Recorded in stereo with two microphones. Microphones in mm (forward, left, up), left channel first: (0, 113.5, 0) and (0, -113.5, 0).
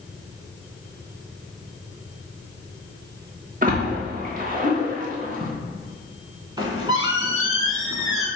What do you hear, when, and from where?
3.6 s a splash: 40° right (ahead or behind), 0.8 m
6.6 s a squeak: 20° right (ahead or behind), 0.8 m